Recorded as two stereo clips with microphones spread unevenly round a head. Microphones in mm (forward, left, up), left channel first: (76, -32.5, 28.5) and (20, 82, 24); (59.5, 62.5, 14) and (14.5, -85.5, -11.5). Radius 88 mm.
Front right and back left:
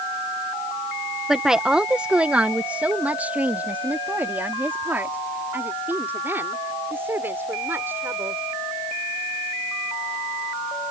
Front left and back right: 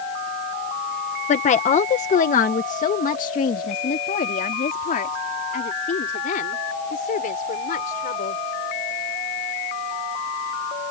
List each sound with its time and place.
1.3 s a woman speaking: 30° left; by 8.4 s 45° left